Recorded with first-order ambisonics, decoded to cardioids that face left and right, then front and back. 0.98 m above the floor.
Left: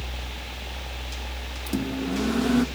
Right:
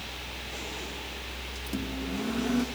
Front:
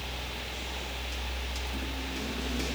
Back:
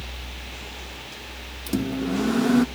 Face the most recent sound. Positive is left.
turn(degrees=155)